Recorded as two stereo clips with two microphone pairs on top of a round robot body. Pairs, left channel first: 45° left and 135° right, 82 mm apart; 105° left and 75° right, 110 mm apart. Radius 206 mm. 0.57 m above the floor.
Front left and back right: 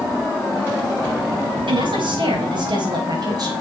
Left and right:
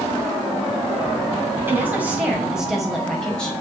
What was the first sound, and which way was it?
A woman speaking, 145° right.